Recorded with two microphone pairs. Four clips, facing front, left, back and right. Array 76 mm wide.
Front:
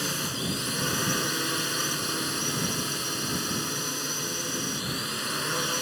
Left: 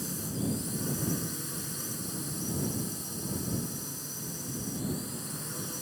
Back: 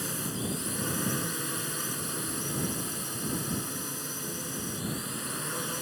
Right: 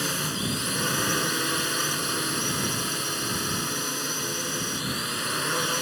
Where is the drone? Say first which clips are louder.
Right 5 dB, front 3 dB; 65° right.